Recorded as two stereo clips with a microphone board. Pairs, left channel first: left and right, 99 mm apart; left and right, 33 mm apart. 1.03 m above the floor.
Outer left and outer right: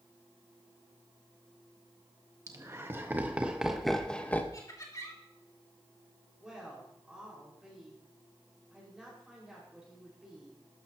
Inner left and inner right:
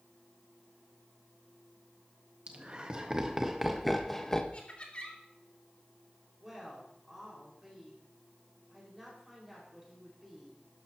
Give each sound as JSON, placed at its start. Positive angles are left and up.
{"t": 2.5, "sound": "laughter", "side_deg": -35, "distance_m": 1.6}
{"t": 4.5, "sound": "laughter", "side_deg": 35, "distance_m": 2.5}
{"t": 6.4, "sound": "a woman speaking", "side_deg": -10, "distance_m": 5.0}